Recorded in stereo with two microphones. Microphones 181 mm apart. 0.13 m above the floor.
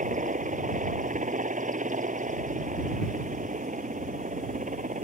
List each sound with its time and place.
0.0 s a helicopter: 45° right (ahead or behind)